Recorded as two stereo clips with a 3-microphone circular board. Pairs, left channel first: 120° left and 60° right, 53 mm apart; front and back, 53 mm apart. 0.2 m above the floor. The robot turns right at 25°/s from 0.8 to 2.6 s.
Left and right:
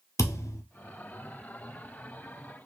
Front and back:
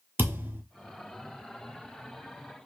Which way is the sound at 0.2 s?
130° left.